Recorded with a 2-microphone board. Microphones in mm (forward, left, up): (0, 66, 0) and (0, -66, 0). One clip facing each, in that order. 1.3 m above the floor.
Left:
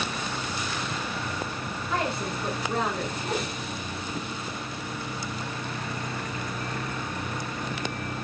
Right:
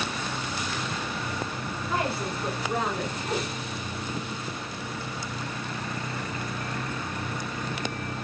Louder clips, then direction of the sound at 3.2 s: Even; centre (ahead or behind).